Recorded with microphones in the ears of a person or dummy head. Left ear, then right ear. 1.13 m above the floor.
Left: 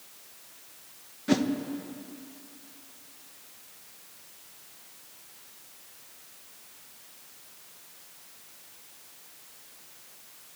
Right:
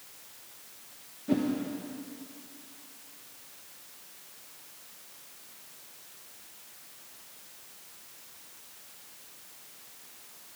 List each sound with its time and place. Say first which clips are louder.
1.3 s a whoosh: left 3 dB; 55° left (ahead or behind), 1.0 m